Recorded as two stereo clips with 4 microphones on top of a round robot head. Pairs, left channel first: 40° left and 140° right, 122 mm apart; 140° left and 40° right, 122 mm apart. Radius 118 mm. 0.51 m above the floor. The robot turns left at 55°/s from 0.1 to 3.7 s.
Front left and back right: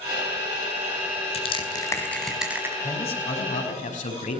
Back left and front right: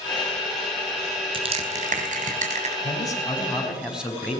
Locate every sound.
1.3 s crushing: 5° left, 4 m; by 2.7 s 70° right, 4 m
2.8 s a man speaking: 90° left, 5 m; by 4.4 s 40° left, 5 m